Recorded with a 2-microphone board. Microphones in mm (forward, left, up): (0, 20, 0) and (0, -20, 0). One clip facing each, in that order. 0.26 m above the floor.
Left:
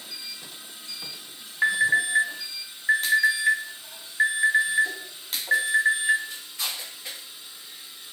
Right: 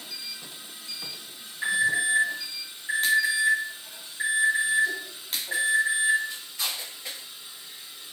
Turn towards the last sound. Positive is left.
turn(degrees=45)  # may be behind; listen again after turning